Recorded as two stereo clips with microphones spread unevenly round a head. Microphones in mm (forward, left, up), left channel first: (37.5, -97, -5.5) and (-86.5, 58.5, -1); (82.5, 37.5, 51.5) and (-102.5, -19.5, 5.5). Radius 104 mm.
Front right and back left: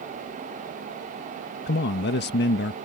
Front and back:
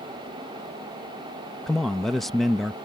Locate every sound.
1.7 s a man speaking: 80° right